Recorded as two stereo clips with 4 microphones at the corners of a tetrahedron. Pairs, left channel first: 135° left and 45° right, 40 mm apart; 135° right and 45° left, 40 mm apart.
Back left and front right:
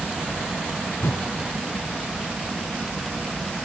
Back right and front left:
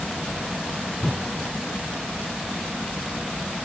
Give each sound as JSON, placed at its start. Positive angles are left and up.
{"t": 1.0, "sound": "a whoosh", "azimuth_deg": 145, "distance_m": 0.7}